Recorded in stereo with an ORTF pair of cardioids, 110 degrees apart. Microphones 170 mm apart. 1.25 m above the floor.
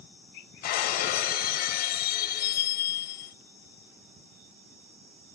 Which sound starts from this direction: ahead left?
Breaking glass, at 0.6 s.